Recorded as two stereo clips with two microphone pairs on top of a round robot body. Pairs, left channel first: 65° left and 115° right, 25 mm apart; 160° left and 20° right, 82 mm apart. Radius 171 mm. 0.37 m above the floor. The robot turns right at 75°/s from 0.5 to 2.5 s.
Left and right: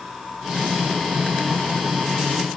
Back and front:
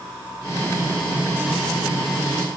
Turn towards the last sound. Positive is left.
No sound to turn to.